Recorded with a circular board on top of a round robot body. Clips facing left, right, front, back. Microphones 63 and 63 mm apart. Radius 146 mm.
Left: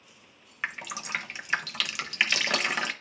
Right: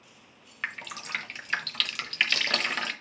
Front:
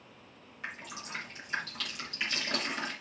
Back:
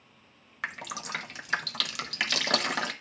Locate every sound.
0.6 s dripping: 170° left, 0.8 m